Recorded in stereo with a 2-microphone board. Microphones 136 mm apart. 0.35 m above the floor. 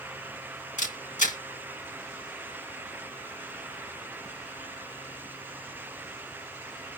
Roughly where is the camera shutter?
Left.